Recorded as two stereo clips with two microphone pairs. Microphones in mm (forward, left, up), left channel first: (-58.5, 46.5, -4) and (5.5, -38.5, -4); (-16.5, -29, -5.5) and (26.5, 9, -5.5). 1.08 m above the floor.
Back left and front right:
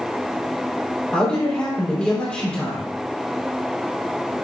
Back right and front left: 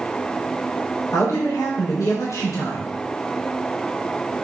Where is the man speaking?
160° right, 2.5 m.